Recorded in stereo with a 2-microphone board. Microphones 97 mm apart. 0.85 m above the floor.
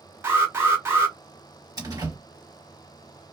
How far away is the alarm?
About 1.5 m.